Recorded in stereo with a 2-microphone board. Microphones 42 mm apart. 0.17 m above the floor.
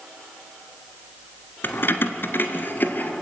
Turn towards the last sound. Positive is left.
turn(degrees=45)  # may be behind; listen again after turning